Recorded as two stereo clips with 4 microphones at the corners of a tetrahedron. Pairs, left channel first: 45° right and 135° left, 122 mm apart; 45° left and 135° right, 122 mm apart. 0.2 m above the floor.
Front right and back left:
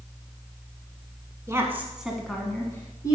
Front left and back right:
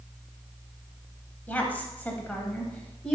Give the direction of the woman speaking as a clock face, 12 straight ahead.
8 o'clock.